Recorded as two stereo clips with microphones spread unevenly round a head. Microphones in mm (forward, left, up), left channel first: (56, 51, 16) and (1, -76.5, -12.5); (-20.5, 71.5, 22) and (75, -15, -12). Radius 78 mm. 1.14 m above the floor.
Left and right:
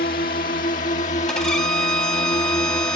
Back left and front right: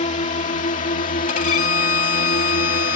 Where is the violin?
145° left.